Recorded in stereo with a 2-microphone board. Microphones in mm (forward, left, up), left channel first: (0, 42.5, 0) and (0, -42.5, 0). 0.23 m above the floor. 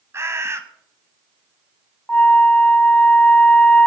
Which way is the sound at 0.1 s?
30° right (ahead or behind).